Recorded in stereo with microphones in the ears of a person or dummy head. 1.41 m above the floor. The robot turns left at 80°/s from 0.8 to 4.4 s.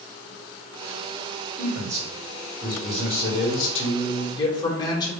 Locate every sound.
1.6 s a man speaking: 115° right, 1.6 m; by 5.1 s 20° left, 1.6 m